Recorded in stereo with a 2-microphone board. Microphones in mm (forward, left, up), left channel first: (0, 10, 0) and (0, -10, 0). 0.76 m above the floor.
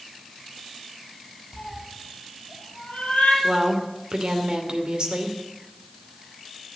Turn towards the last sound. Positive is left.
turn(degrees=-55)  # may be behind; listen again after turning